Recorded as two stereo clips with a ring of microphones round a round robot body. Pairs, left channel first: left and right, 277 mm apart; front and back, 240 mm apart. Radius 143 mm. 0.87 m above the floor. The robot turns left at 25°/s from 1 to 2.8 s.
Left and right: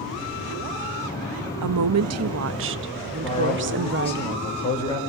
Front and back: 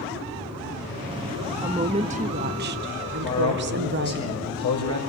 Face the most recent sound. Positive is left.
turn(degrees=20)